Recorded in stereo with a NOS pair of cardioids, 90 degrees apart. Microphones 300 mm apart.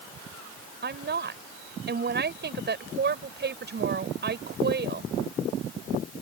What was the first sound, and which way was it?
A woman speaking, 35° right.